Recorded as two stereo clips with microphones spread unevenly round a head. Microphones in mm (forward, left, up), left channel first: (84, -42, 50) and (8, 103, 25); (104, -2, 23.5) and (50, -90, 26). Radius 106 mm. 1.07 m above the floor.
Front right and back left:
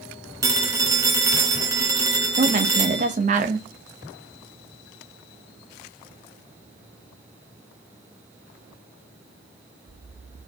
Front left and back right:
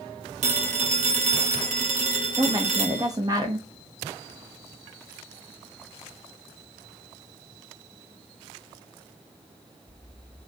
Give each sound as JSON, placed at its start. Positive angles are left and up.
{"t": 0.4, "sound": "a phone ringing", "azimuth_deg": -165, "distance_m": 1.0}
{"t": 2.4, "sound": "a woman speaking", "azimuth_deg": 170, "distance_m": 1.0}